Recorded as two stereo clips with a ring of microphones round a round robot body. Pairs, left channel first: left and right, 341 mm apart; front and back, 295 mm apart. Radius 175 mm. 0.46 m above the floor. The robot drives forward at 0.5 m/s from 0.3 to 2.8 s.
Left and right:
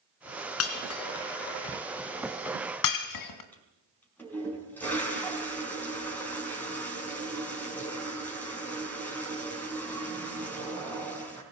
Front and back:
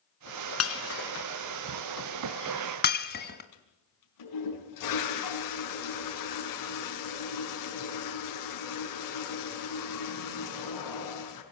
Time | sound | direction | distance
0.6 | breaking glass | 40° left | 3 m
3.5 | a toilet flushing | 5° left | 6 m